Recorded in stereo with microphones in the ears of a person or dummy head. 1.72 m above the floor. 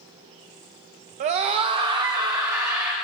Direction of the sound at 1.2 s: 35° right (ahead or behind).